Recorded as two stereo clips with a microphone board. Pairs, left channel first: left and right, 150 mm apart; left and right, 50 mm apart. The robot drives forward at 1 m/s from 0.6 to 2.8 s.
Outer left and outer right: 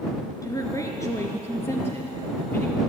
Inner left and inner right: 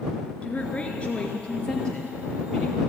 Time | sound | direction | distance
0.4 | a woman speaking | 25° left (ahead or behind) | 2 m